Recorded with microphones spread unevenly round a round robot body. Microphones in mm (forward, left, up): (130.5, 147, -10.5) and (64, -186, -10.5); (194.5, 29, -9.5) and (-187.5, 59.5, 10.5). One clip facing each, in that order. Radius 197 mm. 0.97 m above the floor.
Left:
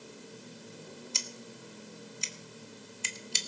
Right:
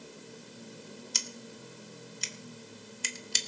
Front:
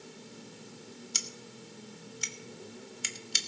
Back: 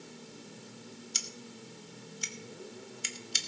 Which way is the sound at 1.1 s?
30° right.